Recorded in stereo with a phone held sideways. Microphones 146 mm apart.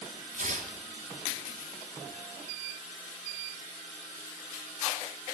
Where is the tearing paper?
70° right (ahead or behind), 1.4 m.